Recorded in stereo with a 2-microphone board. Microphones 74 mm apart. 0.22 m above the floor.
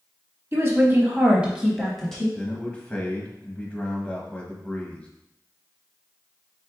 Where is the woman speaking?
35° right (ahead or behind), 1.2 m; by 2.2 s 5° left (ahead or behind), 1.3 m.